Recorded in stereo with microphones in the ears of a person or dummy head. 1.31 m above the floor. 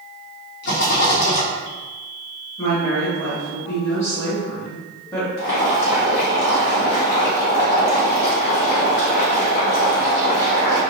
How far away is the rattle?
About 0.8 m.